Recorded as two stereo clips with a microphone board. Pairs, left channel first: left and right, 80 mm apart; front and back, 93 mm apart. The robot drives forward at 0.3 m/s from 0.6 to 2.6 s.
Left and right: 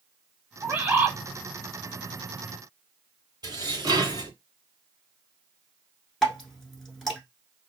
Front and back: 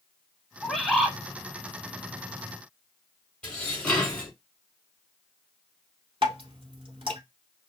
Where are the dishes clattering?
75° right, 1.6 m.